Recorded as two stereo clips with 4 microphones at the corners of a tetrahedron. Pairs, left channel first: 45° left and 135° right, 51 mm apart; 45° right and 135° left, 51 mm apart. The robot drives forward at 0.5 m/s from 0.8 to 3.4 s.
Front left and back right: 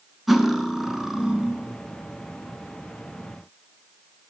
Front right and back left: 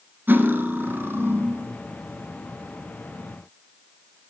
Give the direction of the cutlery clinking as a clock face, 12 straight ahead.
7 o'clock.